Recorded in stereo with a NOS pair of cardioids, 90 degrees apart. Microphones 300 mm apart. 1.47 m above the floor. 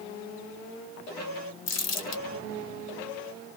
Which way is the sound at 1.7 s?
65° left.